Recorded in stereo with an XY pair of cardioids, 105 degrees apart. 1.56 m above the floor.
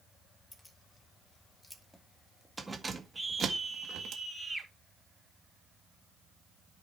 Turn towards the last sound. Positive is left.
turn(degrees=-10)